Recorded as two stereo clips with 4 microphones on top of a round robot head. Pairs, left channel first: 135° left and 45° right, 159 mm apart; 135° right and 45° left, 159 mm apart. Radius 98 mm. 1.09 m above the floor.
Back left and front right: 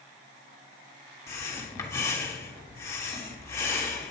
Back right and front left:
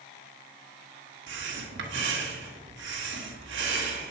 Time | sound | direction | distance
1.3 | breathing | 65° left | 1.8 m